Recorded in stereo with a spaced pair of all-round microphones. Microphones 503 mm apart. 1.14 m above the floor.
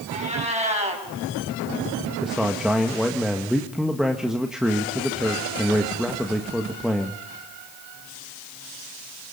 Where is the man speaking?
Centre (ahead or behind), 1.6 m.